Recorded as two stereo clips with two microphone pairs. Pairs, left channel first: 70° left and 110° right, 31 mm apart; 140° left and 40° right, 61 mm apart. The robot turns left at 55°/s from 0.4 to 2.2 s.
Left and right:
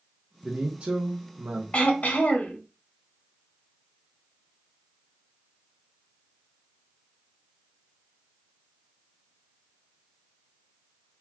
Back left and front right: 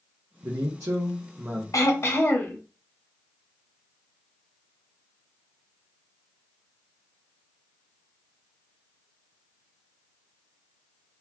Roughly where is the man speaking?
Ahead right.